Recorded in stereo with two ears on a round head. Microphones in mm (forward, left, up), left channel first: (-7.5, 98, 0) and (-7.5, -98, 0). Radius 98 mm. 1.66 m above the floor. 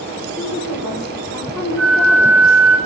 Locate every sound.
0.4 s a woman speaking: centre (ahead or behind), 6.5 m
1.8 s a flute: 70° right (ahead or behind), 7 m